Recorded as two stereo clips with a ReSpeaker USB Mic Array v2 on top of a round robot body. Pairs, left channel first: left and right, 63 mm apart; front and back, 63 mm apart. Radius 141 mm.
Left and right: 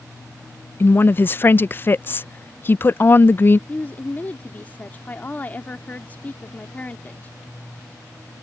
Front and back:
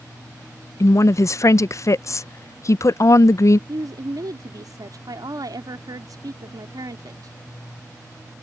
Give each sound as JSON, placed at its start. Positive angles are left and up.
{"t": 0.8, "sound": "a woman speaking", "azimuth_deg": 35}
{"t": 3.7, "sound": "a woman speaking", "azimuth_deg": 155}